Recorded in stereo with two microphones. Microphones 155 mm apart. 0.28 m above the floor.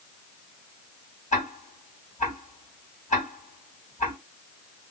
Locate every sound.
1.3 s ticking: 50° left (ahead or behind), 2 m